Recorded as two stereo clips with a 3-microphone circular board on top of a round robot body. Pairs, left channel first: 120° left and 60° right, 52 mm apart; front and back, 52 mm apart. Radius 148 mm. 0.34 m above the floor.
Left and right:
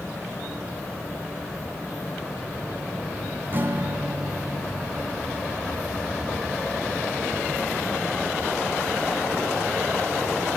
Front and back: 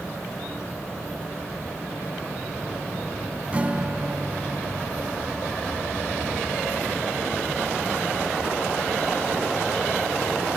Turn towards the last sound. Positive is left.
turn(degrees=-115)